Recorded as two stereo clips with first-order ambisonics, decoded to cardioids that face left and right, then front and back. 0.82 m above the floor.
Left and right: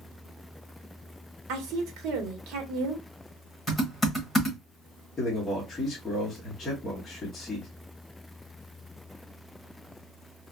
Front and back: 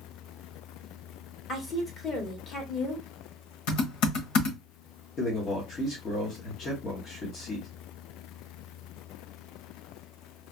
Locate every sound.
1.5 s a woman speaking: 60° right, 1.2 m
3.7 s typing on a keyboard: 10° left, 1.2 m
5.2 s a man speaking: 30° left, 1.1 m